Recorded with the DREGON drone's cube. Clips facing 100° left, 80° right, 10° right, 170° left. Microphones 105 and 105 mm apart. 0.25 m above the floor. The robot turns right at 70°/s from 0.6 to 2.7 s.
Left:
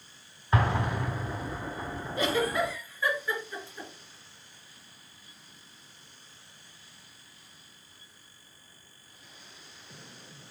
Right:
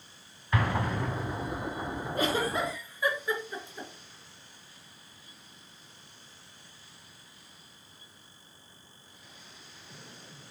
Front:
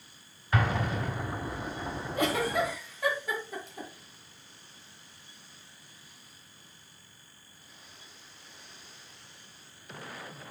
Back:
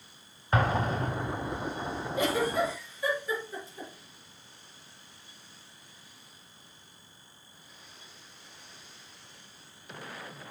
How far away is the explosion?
About 1.2 m.